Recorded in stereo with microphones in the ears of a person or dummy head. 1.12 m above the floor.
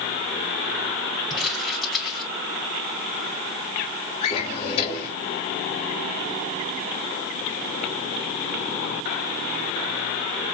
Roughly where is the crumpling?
Centre.